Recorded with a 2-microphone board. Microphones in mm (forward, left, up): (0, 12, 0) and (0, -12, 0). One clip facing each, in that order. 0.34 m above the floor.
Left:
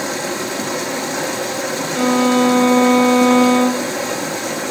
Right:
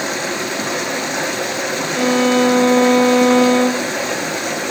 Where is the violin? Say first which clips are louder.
Even; centre (ahead or behind), 0.9 m.